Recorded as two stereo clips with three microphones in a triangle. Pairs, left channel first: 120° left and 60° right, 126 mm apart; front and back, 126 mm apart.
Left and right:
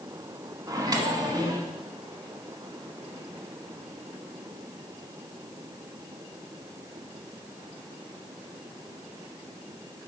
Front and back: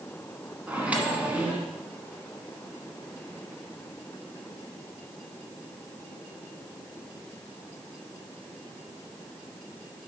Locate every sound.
0.7 s a microwave: 105° right, 1.1 m